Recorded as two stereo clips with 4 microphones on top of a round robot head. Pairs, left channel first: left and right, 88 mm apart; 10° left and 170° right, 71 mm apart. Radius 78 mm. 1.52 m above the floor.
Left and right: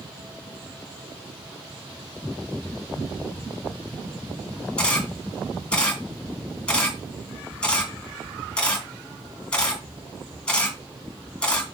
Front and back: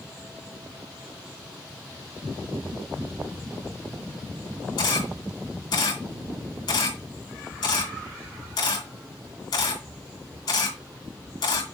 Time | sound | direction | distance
4.8 | a camera shutter | 15° left | 2.5 m